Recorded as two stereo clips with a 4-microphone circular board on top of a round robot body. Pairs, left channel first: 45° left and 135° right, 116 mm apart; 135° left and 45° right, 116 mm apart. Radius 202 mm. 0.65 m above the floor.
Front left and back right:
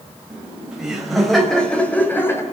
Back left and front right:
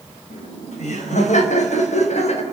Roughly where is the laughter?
Behind left.